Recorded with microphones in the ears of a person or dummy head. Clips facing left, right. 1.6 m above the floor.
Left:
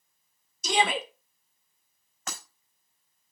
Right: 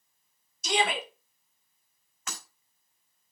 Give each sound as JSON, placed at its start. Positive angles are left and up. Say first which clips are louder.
{"t": 0.6, "sound": "a shout", "louder": "left 2 dB", "side_deg": 85, "distance_m": 3.0}
{"t": 2.3, "sound": "breaking glass", "louder": "left 2 dB", "side_deg": 45, "distance_m": 5.0}